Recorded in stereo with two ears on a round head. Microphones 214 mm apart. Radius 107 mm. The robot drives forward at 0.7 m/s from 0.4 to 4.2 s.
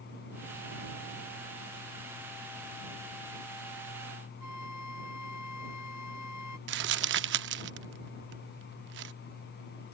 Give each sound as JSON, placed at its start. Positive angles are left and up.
{"t": 4.4, "sound": "a flute", "side_deg": 85}
{"t": 6.7, "sound": "crumpling", "side_deg": -50}